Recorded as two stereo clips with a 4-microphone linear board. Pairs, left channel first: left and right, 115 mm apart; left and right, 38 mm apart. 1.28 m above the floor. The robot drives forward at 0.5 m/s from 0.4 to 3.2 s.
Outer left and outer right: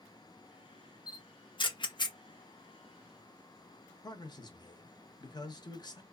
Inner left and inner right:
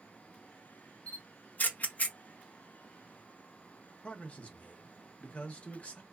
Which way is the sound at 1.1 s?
35° left (ahead or behind).